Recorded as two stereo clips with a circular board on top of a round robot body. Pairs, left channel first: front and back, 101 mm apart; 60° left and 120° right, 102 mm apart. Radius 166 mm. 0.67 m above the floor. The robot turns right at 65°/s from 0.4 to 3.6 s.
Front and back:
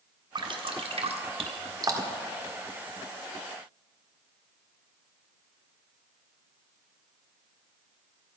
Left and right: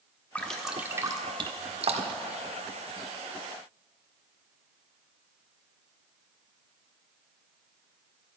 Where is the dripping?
135° left, 1.4 m; by 2.3 s 100° right, 1.4 m.